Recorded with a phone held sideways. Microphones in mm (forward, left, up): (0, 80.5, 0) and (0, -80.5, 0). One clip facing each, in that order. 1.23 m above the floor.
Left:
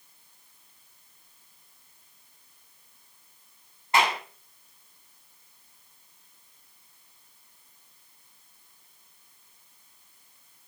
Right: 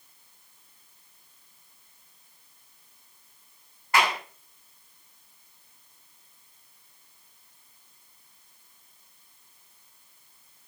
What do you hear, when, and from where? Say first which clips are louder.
3.9 s a clap: left 1 dB; 25° left (ahead or behind), 7.5 m